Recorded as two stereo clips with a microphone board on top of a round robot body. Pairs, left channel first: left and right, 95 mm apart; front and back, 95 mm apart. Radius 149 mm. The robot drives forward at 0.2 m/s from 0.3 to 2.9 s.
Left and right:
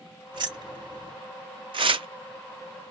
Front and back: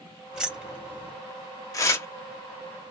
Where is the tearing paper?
55° right, 0.6 m; by 2.1 s 60° right, 0.6 m.